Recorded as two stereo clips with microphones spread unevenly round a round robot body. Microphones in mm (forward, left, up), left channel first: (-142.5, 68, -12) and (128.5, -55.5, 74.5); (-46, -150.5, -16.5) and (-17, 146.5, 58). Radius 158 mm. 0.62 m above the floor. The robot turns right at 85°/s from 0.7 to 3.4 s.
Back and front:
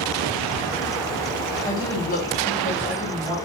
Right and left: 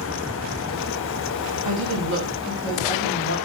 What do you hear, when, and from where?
1.6 s a woman speaking: 95° left, 1.3 m; by 3.4 s 120° right, 1.3 m